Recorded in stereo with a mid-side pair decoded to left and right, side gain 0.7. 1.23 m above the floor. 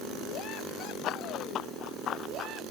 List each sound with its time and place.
1.0 s running footsteps: 50° left; by 2.6 s 45° left